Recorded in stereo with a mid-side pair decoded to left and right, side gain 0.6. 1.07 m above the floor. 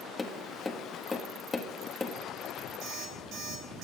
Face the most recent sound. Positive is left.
turn(degrees=-60)